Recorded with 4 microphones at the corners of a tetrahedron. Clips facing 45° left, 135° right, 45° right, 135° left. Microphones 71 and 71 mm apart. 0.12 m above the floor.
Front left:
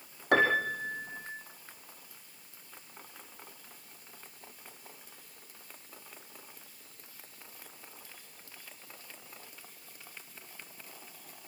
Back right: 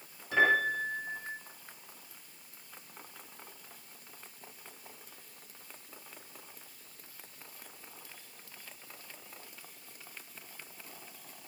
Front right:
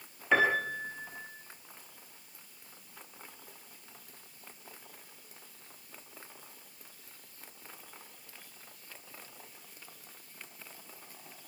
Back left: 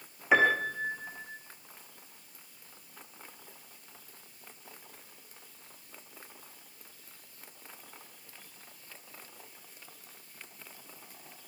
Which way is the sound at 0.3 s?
60° left.